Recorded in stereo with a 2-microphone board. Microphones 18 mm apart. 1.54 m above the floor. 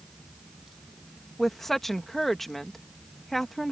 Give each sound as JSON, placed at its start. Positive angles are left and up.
{"t": 1.4, "sound": "a woman speaking", "side_deg": 15}